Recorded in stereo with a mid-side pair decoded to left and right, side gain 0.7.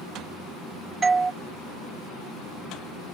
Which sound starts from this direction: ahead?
A doorbell, at 1.0 s.